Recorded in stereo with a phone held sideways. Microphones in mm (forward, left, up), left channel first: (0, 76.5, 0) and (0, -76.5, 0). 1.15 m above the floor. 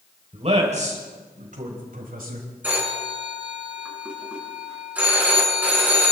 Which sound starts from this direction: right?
A man speaking, at 0.3 s.